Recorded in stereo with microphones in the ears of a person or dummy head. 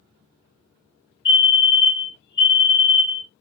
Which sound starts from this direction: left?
A fire alarm, at 1.2 s.